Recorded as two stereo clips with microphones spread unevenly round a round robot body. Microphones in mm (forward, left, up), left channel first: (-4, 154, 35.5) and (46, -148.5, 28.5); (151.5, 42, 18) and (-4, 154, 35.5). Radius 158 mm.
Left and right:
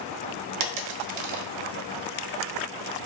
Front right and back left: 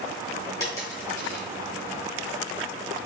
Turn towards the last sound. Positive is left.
turn(degrees=-110)